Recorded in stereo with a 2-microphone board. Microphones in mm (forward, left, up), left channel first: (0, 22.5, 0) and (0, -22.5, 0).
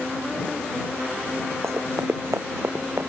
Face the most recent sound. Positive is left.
turn(degrees=-70)  # may be behind; listen again after turning